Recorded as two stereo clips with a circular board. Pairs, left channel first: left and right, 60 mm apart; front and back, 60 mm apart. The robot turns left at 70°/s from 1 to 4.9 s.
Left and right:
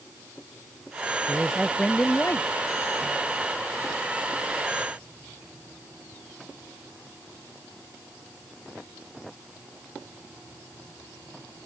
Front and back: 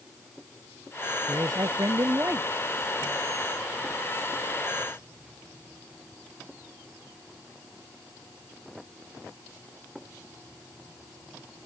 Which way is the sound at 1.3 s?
150° right.